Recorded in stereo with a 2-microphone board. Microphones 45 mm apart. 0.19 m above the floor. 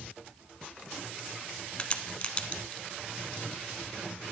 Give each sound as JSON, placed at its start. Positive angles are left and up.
{"t": 1.8, "sound": "a crack", "side_deg": 25, "distance_m": 0.7}